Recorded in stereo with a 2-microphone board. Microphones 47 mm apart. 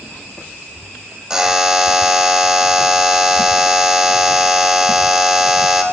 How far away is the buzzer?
About 0.8 m.